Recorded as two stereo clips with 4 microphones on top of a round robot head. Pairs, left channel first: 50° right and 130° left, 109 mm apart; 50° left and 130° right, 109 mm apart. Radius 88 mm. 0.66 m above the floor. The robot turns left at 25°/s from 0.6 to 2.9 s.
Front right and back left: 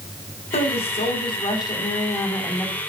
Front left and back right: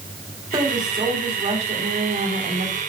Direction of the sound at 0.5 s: 75° right.